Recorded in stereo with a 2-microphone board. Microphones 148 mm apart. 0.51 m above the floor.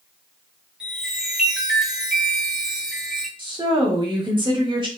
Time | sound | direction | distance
0.8 | a chime | 5° right (ahead or behind) | 0.7 m
3.4 | a woman speaking | 35° right (ahead or behind) | 0.9 m